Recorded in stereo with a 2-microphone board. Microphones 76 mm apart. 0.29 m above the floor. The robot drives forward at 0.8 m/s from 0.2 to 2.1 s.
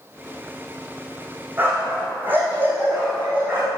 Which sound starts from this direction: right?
A dog barking, at 1.6 s.